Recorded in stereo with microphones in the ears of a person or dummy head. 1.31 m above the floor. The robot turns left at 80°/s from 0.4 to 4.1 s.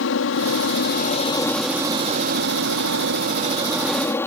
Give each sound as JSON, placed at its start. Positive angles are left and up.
{"t": 0.0, "sound": "an aircraft", "azimuth_deg": 100}